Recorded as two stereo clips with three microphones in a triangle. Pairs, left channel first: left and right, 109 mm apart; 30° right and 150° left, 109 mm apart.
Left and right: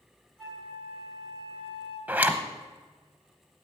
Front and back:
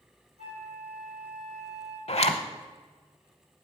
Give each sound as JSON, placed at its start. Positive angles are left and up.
{"t": 0.4, "sound": "a flute", "azimuth_deg": 175, "distance_m": 3.5}
{"t": 2.1, "sound": "a zipper", "azimuth_deg": -15, "distance_m": 0.8}